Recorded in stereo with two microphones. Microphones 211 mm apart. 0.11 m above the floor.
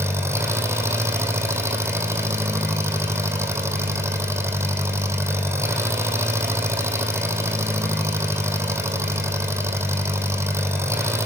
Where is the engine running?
10° right (ahead or behind), 3.5 m.